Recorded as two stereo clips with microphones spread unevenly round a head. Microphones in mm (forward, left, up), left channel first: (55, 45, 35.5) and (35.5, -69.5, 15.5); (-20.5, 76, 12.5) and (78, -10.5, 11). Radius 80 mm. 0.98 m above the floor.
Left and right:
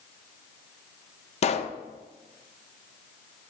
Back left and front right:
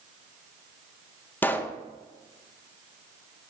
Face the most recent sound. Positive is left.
turn(degrees=65)